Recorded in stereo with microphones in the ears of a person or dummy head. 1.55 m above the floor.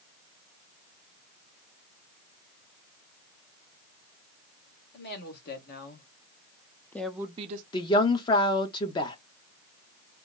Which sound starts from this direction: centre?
A woman speaking, at 7.7 s.